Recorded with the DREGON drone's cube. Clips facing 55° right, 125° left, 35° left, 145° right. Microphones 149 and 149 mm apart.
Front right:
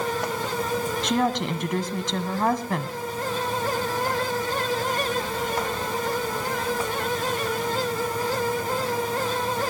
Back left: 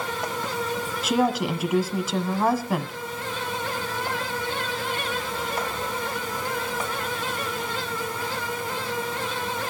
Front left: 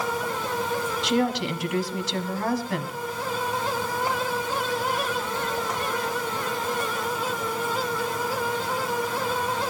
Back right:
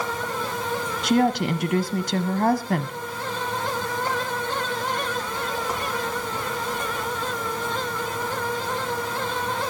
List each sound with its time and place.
1.0 s a woman speaking: 155° right, 1.5 m